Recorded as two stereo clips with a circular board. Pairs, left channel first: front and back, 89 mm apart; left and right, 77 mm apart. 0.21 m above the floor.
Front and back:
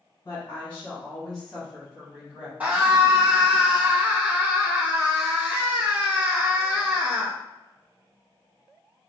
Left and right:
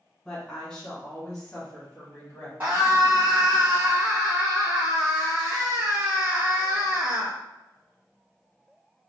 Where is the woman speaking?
25° left, 1.3 m; by 2.5 s 125° left, 1.4 m.